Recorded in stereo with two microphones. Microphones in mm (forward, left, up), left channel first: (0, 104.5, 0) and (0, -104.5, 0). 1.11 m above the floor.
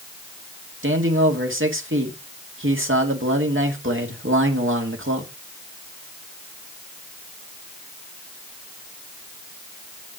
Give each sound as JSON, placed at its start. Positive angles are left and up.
{"t": 0.8, "sound": "a man speaking", "side_deg": -75, "distance_m": 1.9}